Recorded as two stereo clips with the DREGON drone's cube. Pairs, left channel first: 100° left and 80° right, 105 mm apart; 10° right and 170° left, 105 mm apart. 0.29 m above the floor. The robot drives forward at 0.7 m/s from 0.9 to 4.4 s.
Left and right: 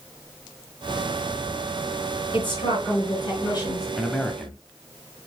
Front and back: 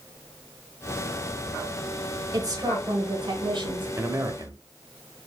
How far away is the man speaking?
About 1.0 m.